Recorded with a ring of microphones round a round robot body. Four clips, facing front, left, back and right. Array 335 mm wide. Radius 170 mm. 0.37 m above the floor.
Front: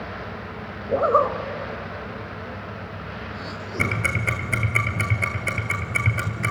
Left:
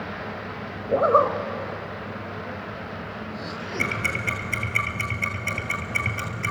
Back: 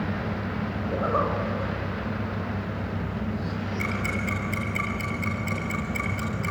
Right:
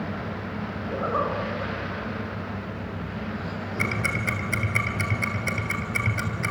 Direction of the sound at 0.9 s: 50° left.